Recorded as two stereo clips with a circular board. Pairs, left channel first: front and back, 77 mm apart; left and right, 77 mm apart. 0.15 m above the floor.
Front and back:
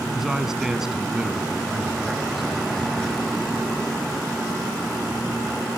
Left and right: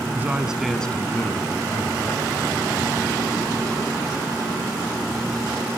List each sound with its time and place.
0.1 s a man speaking: 100° right, 1.1 m; by 3.0 s 95° left, 2.5 m